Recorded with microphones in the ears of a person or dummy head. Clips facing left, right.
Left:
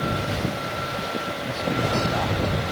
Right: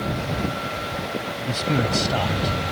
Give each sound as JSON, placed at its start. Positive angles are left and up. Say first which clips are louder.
{"t": 1.5, "sound": "a man speaking", "louder": "right 3 dB", "side_deg": -45}